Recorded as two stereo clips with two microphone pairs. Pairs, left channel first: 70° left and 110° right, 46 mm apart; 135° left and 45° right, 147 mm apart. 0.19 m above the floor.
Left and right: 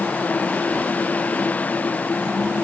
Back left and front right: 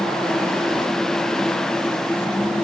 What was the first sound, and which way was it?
Only background noise.